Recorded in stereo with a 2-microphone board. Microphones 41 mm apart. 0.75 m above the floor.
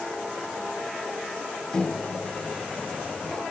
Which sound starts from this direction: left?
A microwave, at 1.7 s.